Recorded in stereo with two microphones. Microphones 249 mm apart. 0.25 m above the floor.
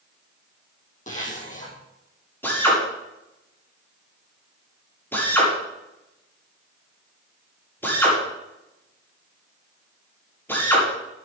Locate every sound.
1.1 s a zipper: 30° left (ahead or behind), 4 m
2.4 s a drill: 10° left (ahead or behind), 7.5 m